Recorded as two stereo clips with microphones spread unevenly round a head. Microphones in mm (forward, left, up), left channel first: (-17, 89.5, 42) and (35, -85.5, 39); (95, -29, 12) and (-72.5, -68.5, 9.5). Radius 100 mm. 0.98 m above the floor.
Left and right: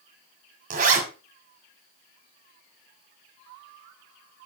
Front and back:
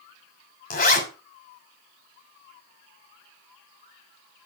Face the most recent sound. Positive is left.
turn(degrees=-25)